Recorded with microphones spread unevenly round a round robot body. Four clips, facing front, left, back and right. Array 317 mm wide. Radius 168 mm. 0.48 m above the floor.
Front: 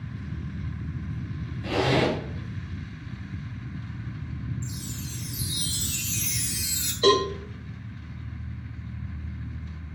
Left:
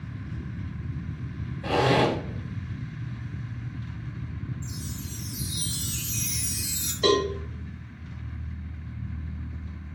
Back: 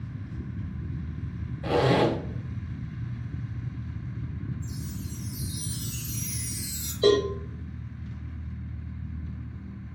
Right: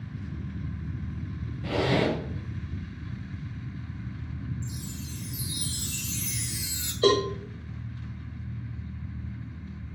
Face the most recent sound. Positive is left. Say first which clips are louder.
# even, even
turn(degrees=-135)